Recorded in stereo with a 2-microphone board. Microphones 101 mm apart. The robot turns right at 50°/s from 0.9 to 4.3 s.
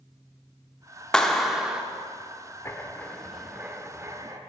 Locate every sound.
1.1 s a clap: 5° left (ahead or behind), 0.6 m; by 1.8 s 10° right (ahead or behind), 0.6 m
2.6 s writing: 145° left, 0.8 m; by 4.4 s 130° right, 0.8 m